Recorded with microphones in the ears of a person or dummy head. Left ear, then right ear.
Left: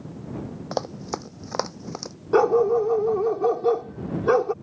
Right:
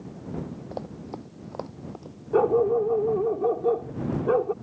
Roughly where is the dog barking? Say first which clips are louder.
Left 3 dB; left.